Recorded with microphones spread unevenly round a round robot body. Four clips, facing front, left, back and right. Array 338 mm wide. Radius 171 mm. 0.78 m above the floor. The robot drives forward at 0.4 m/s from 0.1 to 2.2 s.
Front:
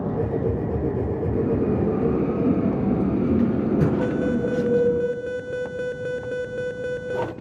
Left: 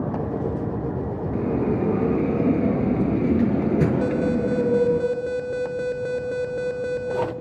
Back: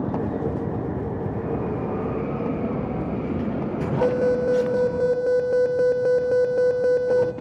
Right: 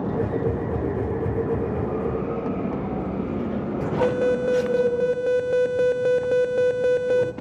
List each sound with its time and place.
1.3 s a bell: 45° left, 6 m
4.0 s an alarm: 145° right, 1.6 m